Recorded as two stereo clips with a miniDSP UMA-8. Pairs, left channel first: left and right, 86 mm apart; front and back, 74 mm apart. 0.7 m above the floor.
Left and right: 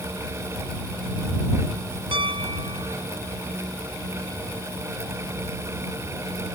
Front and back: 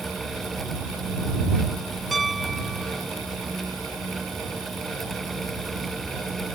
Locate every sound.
2.1 s a piano: 90° right